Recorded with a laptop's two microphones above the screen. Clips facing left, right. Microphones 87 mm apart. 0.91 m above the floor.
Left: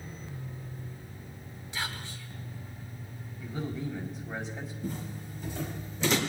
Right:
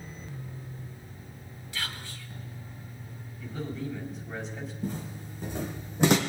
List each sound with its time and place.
1.7 s whispering: 20° left (ahead or behind), 3 m
3.4 s a man speaking: 5° left (ahead or behind), 4.5 m
4.8 s footsteps: 65° right (ahead or behind), 5 m; by 6.2 s 60° right (ahead or behind), 3 m